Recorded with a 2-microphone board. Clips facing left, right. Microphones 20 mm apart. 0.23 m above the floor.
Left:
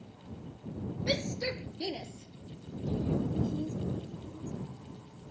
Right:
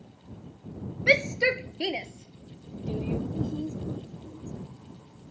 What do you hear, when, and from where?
1.1 s a shout: 70° right (ahead or behind); by 3.2 s 80° right
3.3 s a woman speaking: 35° right (ahead or behind)